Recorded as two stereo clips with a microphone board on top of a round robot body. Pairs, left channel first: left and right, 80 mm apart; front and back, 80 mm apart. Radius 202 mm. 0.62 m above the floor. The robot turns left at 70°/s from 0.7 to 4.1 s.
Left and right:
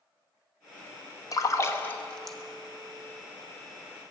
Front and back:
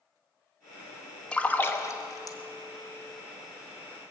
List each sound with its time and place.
1.3 s a splash: 75° left, 1.4 m; by 2.4 s straight ahead, 1.4 m